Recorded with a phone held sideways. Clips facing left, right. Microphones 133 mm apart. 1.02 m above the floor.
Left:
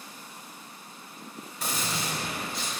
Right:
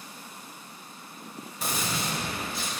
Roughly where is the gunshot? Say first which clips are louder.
Right 1 dB; centre.